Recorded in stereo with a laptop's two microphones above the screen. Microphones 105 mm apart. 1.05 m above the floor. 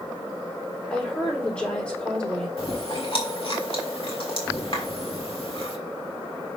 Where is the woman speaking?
10° left (ahead or behind), 3 m.